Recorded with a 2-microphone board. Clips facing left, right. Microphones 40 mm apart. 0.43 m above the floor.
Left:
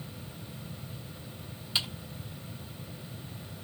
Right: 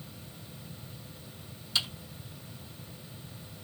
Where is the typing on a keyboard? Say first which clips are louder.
Even; 25° left (ahead or behind), 2 m.